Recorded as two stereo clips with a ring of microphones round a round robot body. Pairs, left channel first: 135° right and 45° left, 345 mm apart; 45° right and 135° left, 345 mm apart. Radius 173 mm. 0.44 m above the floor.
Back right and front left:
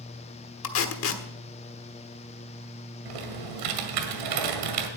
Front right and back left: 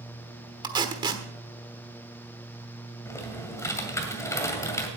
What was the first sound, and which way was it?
Tape being pulled, 155° right.